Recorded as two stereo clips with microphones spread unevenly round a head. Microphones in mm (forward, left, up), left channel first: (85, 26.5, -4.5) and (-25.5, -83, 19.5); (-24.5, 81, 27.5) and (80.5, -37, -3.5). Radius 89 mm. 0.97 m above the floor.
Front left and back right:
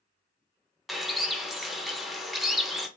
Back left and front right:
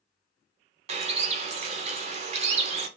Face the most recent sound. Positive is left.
turn(degrees=-40)